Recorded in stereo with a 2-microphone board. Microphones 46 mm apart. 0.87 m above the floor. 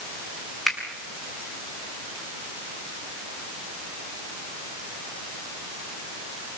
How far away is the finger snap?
About 6.5 m.